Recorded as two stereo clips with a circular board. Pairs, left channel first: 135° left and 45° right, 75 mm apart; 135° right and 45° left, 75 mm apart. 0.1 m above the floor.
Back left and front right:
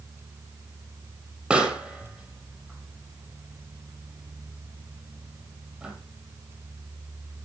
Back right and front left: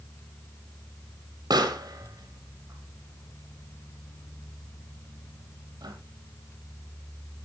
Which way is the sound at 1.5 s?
30° left.